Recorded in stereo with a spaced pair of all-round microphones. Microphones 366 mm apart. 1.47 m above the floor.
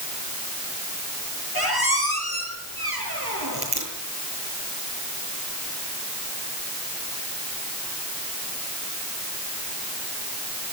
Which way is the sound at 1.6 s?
80° right.